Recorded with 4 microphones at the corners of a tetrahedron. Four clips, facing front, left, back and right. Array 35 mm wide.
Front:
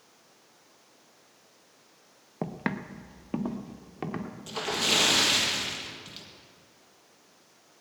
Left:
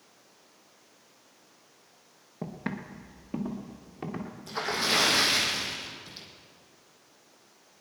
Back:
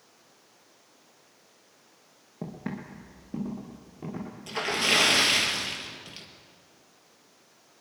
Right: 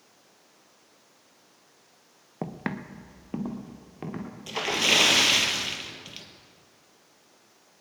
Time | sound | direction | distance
2.4 | footsteps | 45° right | 1.1 m
4.5 | a splash | 100° right | 1.8 m